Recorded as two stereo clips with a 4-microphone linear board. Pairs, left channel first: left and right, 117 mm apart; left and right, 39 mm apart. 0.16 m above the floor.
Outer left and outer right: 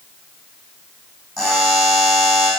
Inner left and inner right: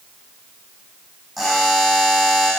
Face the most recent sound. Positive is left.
turn(degrees=0)  # may be behind; listen again after turning